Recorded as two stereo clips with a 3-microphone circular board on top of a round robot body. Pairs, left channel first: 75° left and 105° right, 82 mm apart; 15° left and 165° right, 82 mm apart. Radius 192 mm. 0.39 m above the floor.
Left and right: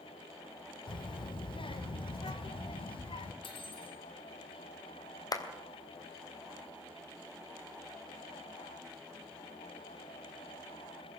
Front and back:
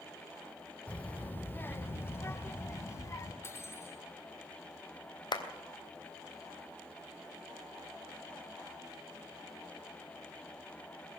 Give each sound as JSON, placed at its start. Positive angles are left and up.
{"t": 0.9, "sound": "a child speaking", "azimuth_deg": 90, "distance_m": 1.6}
{"t": 3.4, "sound": "cutlery clinking", "azimuth_deg": 75, "distance_m": 3.0}
{"t": 5.3, "sound": "a clap", "azimuth_deg": 35, "distance_m": 3.0}